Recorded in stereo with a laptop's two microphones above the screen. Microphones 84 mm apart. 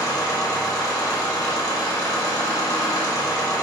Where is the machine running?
45° left (ahead or behind), 2 m.